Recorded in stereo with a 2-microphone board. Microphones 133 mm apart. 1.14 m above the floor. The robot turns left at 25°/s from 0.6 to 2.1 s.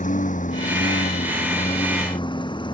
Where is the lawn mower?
75° left (ahead or behind); by 2.8 s 35° left (ahead or behind).